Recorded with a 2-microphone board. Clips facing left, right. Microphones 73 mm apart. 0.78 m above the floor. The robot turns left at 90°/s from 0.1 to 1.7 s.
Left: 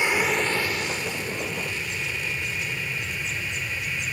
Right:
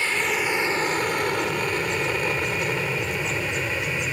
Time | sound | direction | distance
0.0 | an aircraft | 15° left (ahead or behind) | ?